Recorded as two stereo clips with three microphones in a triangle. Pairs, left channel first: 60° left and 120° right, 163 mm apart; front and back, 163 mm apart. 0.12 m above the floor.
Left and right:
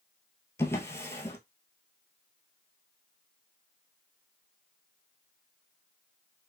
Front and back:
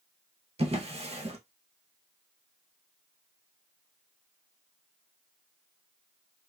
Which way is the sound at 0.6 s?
130° left.